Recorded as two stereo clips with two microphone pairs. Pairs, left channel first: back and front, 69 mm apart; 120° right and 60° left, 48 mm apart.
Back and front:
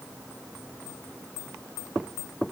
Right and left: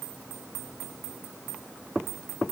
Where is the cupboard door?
I don't hear a cupboard door.